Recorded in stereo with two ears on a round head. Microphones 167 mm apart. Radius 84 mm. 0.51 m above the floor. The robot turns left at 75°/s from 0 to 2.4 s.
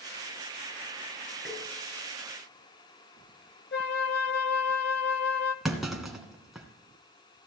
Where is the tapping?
10° left (ahead or behind), 5.5 m; by 1.6 s 20° left (ahead or behind), 5.5 m.